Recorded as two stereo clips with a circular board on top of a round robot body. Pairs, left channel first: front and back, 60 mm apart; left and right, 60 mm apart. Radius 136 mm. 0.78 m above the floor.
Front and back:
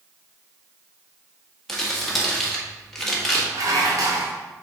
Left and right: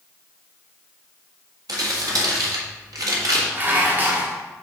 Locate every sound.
1.7 s crumpling: 90° right, 1.8 m
3.5 s dishes clattering: 150° right, 1.2 m